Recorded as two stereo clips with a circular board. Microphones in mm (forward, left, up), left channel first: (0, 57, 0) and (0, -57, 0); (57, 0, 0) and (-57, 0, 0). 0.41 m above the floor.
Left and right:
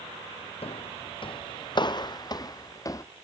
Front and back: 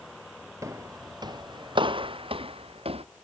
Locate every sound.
0.6 s footsteps: 120° left; by 3.0 s 150° left